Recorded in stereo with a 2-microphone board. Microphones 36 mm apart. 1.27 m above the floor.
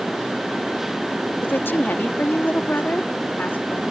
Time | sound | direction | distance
1.4 | a woman speaking | 80° left | ?